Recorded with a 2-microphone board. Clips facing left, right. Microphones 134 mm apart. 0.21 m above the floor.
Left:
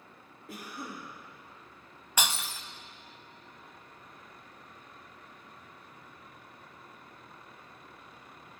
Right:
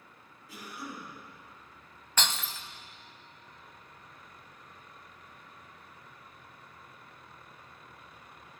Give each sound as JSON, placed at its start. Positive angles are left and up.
{"t": 0.5, "sound": "a cough", "side_deg": 65, "distance_m": 6.0}
{"t": 2.2, "sound": "breaking glass", "side_deg": 10, "distance_m": 0.6}